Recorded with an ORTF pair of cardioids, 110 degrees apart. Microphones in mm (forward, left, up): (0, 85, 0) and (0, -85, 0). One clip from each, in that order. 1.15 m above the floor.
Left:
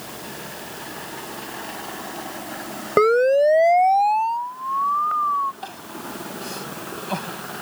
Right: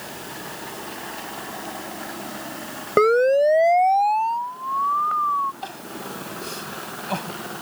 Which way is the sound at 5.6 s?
5° right.